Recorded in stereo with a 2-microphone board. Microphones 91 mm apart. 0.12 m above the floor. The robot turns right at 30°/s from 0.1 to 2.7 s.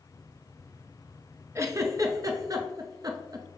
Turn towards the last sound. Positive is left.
turn(degrees=-45)  # may be behind; listen again after turning